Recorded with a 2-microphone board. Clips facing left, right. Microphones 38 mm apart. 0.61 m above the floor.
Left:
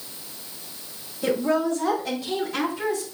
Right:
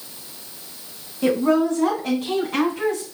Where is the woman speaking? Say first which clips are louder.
Right 4 dB; 60° right (ahead or behind), 5 m; by 3.0 s 75° right (ahead or behind), 4.5 m.